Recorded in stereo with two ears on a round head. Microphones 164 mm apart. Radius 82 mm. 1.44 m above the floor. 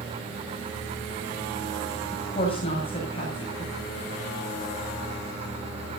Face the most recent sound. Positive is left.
turn(degrees=30)  # may be behind; listen again after turning